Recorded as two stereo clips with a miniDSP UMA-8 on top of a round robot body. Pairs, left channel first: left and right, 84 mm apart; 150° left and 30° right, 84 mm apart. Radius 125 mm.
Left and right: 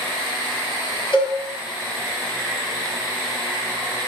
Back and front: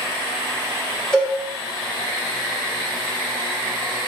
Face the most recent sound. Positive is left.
turn(degrees=70)